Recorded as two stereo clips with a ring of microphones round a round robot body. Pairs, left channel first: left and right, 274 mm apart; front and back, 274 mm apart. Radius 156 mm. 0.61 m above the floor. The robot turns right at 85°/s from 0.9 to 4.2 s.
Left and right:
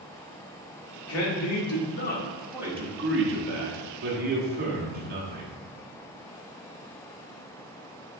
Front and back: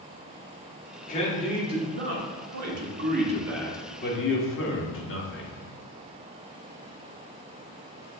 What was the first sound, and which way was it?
A man speaking, 60° left.